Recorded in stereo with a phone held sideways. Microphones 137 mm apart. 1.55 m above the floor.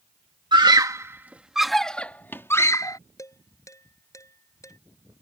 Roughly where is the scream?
Right.